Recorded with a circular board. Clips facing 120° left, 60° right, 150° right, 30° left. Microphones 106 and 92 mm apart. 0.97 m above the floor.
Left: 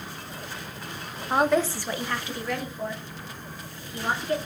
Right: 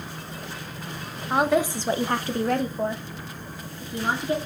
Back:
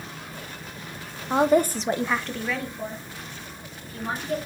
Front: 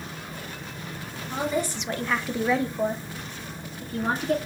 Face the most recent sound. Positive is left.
turn(degrees=0)